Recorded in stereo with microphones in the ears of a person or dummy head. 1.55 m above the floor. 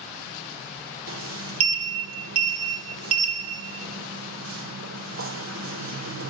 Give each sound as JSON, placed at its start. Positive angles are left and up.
{"t": 1.1, "sound": "a sliding door", "side_deg": -80, "distance_m": 1.4}